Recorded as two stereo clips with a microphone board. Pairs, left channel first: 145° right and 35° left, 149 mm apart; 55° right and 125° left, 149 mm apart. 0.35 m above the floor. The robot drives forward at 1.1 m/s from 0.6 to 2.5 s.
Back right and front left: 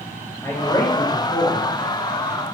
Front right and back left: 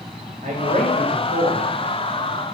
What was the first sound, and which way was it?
A man speaking, 145° left.